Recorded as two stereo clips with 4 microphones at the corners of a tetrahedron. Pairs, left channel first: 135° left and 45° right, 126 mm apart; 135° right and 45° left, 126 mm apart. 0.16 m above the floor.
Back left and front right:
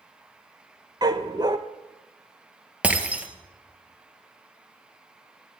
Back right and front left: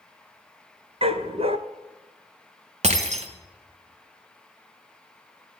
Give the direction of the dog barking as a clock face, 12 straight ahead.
12 o'clock.